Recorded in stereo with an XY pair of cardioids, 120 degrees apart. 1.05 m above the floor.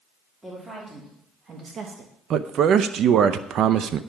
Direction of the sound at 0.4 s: 15° right.